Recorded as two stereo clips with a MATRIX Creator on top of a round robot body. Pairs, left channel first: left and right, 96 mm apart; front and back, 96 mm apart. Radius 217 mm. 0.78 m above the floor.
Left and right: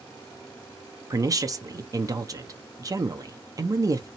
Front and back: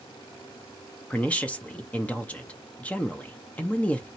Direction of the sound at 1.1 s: 70° right.